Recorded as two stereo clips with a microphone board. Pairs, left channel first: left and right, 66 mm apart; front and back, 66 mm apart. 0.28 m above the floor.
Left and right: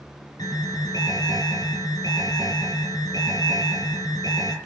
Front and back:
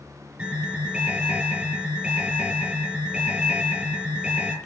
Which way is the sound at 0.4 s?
110° left.